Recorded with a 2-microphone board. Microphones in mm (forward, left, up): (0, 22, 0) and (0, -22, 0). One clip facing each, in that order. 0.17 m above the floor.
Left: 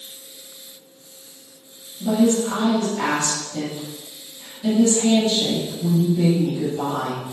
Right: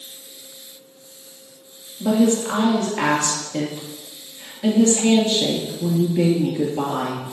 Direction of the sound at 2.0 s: 65° right (ahead or behind).